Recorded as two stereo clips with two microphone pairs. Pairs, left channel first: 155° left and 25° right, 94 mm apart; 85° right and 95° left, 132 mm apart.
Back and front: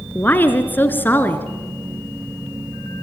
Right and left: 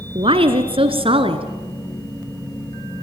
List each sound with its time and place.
0.1 s a woman speaking: 95° left, 1.6 m